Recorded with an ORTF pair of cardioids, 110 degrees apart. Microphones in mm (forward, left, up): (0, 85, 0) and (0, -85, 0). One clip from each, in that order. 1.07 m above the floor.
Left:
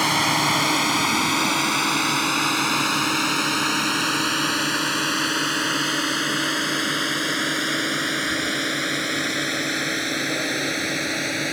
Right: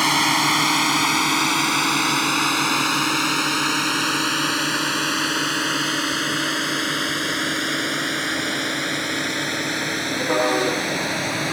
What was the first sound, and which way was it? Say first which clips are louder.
A drone: right 2 dB; 15° right.